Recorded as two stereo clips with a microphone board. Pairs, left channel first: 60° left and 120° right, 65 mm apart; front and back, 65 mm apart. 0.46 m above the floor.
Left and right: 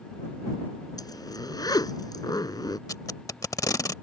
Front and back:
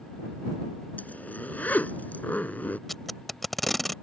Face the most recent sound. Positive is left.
turn(degrees=90)